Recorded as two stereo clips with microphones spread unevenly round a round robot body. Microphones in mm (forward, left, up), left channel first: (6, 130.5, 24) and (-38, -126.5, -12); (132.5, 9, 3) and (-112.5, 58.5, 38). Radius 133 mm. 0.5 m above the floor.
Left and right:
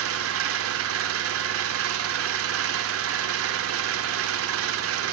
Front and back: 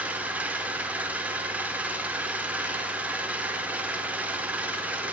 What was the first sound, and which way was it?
An engine running, 100° right.